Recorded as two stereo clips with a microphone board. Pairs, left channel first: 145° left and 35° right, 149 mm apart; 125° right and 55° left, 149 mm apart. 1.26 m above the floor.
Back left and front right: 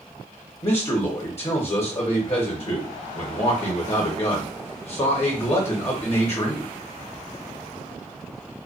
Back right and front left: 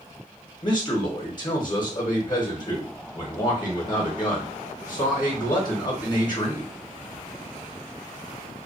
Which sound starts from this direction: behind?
A man speaking, at 0.6 s.